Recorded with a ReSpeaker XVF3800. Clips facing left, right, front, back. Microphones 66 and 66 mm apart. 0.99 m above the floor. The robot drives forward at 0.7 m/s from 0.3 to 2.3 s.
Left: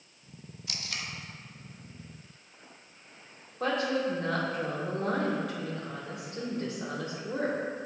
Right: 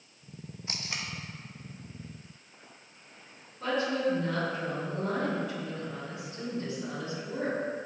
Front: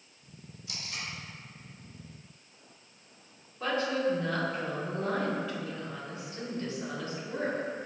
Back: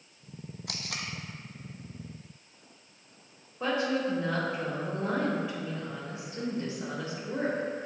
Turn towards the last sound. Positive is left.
turn(degrees=110)